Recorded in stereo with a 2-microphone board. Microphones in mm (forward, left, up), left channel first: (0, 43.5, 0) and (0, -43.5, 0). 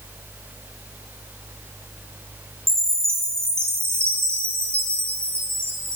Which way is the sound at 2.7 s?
30° right (ahead or behind).